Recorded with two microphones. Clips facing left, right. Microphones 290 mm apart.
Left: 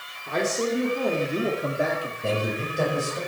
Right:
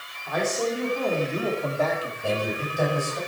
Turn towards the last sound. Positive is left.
turn(degrees=25)  # may be behind; listen again after turning